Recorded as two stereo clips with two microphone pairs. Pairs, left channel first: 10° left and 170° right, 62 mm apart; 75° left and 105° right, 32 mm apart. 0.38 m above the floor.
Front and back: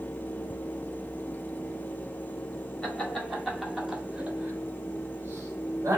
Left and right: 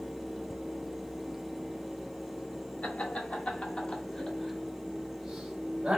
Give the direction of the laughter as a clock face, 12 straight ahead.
9 o'clock.